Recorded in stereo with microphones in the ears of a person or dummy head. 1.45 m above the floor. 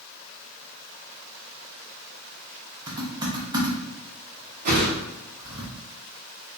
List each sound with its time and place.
2.9 s typing on a keyboard: 20° right (ahead or behind), 0.7 m
4.7 s a whoosh: 50° right (ahead or behind), 0.7 m